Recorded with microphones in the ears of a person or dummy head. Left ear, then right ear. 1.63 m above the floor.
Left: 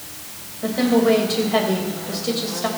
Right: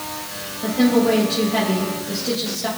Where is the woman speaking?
40° left (ahead or behind), 3 m.